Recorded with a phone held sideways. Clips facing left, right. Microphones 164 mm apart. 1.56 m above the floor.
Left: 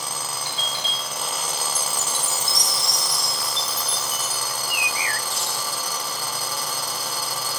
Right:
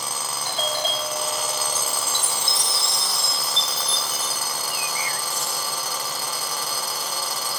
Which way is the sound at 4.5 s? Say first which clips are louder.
Even; 75° left (ahead or behind).